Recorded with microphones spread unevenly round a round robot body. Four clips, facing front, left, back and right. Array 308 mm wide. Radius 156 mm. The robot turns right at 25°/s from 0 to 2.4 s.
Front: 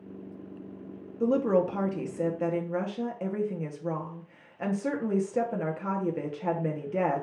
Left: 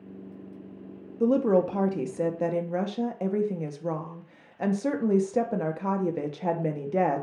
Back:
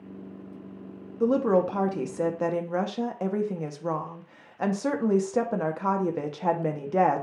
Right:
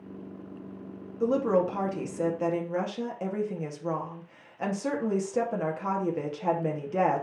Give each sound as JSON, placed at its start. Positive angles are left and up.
{"t": 1.2, "sound": "a woman speaking", "azimuth_deg": 110, "distance_m": 0.6}